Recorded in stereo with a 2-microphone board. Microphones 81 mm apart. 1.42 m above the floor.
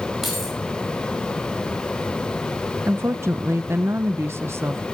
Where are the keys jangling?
Centre (ahead or behind), 6.5 m.